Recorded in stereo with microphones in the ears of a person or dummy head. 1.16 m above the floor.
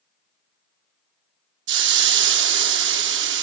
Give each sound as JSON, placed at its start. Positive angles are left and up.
{"t": 1.7, "sound": "a hiss", "side_deg": -65, "distance_m": 1.1}